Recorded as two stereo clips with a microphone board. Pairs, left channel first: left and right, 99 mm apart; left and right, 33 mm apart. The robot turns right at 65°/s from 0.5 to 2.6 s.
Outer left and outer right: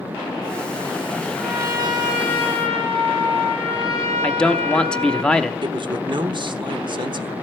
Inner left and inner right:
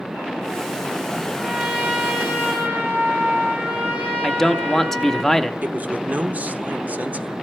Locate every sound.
1.4 s a trumpet: 165° right, 4.5 m; by 5.2 s 85° right, 4.5 m
4.2 s a man speaking: 10° left (ahead or behind), 0.7 m
5.6 s a man speaking: 55° right (ahead or behind), 1.0 m